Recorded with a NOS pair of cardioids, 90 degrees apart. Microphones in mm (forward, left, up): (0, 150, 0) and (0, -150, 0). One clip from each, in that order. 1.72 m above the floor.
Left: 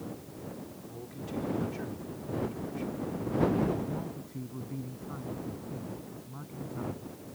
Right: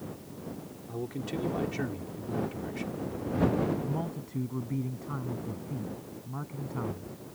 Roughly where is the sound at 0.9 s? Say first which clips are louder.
Right 6 dB; ahead right.